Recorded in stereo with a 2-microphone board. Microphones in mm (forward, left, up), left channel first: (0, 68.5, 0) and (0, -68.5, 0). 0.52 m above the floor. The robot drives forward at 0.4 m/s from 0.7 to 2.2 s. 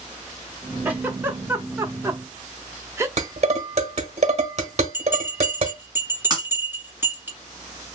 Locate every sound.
0.8 s a giggle: 15° right (ahead or behind), 0.9 m; by 3.1 s 20° right (ahead or behind), 0.6 m
3.2 s dishes clattering: 55° right (ahead or behind), 1.3 m
4.9 s a bell: 15° right (ahead or behind), 1.7 m
6.3 s breaking glass: 30° right (ahead or behind), 1.8 m